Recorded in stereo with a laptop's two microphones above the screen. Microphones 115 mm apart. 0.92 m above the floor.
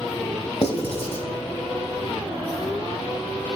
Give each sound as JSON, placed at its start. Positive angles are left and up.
{"t": 0.6, "sound": "writing", "side_deg": 60, "distance_m": 1.3}